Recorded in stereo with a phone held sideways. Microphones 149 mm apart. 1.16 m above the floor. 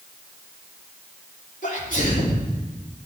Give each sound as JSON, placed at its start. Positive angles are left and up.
{"t": 1.6, "sound": "a sneeze", "side_deg": 65, "distance_m": 3.5}